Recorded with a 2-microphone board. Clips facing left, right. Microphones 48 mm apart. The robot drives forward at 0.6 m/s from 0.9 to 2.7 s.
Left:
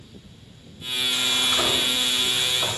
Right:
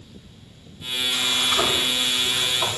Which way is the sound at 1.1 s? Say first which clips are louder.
Right 1 dB; 85° right.